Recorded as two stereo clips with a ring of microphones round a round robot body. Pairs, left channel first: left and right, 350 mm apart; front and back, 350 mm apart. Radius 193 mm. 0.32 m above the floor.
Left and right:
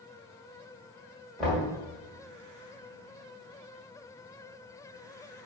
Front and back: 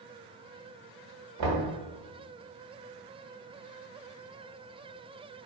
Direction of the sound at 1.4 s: Straight behind.